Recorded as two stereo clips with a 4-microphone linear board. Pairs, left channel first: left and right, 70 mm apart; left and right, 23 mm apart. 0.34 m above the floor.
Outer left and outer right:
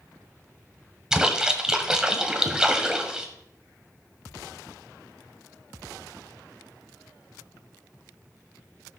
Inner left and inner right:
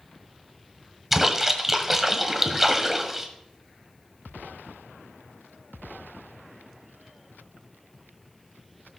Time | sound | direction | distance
1.1 | a splash | 10° right (ahead or behind) | 1.3 m